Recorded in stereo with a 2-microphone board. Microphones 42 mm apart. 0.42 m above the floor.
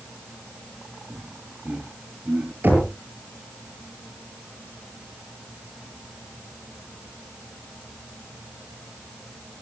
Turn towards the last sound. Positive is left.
turn(degrees=-50)  # may be behind; listen again after turning